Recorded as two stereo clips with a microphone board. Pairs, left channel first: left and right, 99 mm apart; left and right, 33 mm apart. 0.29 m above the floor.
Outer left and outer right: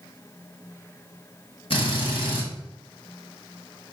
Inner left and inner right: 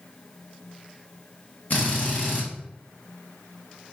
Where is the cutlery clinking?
I don't hear cutlery clinking.